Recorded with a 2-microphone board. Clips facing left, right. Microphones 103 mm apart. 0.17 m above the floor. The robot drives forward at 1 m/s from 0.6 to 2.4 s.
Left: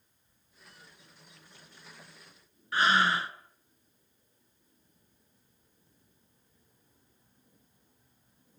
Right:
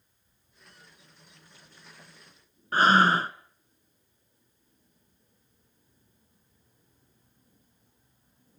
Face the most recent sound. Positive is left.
turn(degrees=-40)  # may be behind; listen again after turning